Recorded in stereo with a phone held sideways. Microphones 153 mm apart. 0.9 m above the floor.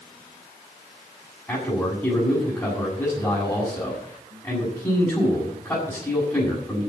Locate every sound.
1.5 s a man speaking: 20° left (ahead or behind), 6.5 m